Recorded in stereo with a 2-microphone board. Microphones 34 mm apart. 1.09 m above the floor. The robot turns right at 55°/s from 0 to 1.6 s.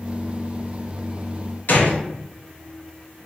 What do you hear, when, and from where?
1.7 s a gunshot: 60° left (ahead or behind), 0.6 m